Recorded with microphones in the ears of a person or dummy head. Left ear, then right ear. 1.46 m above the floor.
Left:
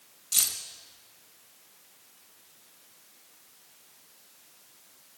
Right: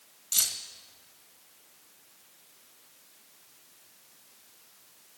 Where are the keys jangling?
Centre (ahead or behind), 1.3 m.